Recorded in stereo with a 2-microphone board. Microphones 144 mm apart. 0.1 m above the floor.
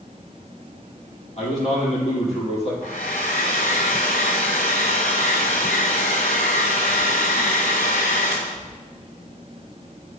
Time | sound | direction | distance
1.4 | a man speaking | 50° left (ahead or behind) | 3 m
2.8 | a hair dryer | 75° left (ahead or behind) | 1.8 m